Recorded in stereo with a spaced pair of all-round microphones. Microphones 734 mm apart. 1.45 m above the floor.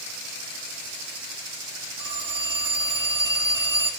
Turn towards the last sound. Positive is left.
turn(degrees=-25)  # may be behind; listen again after turning